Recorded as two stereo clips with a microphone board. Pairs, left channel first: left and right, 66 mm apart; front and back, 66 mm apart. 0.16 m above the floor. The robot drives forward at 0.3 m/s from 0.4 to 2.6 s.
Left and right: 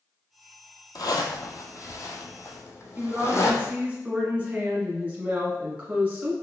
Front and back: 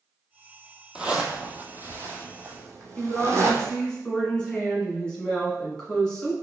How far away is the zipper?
About 0.7 m.